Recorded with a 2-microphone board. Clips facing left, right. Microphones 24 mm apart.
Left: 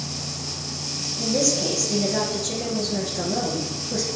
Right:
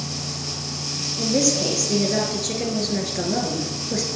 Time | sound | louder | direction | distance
1.2 | a woman speaking | right 2 dB | 40° right (ahead or behind) | 1.6 m